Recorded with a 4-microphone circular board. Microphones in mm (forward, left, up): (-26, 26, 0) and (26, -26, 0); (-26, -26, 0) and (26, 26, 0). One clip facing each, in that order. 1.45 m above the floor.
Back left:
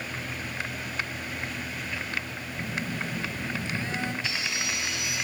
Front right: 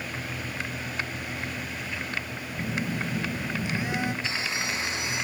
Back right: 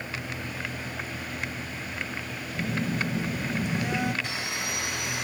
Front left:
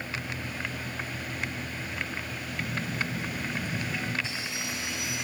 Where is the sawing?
100° right, 1.3 m.